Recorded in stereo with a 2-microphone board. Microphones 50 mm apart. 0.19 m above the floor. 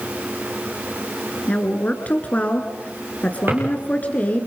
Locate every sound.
1.5 s a woman speaking: 30° left (ahead or behind), 2.5 m
3.5 s a drawer: 45° right (ahead or behind), 8.5 m